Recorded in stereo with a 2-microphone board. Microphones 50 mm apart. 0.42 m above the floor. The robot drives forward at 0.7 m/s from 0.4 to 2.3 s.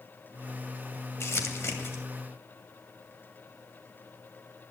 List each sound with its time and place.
1.2 s crumpling: 60° left (ahead or behind), 2 m; by 2.0 s 55° left (ahead or behind), 2 m